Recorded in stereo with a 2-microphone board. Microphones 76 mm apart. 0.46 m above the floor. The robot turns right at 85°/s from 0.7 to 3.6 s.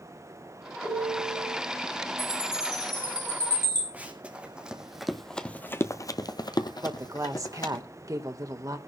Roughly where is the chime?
Right.